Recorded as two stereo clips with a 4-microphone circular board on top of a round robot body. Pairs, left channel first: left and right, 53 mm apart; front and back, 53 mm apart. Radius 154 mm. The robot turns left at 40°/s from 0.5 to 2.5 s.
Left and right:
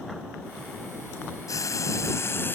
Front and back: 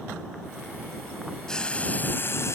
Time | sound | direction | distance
1.5 | frying | 80° left | ?